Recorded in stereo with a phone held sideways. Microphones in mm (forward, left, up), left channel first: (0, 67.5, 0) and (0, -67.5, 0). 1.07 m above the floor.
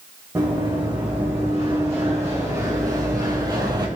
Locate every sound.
0.3 s running footsteps: 15° right (ahead or behind), 5 m; by 3.9 s 30° right (ahead or behind), 1.9 m